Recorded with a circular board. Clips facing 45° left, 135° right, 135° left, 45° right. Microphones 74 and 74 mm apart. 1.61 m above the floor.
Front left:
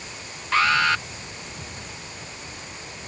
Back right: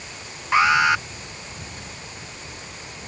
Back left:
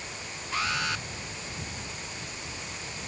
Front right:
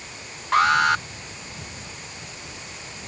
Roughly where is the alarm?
Ahead right.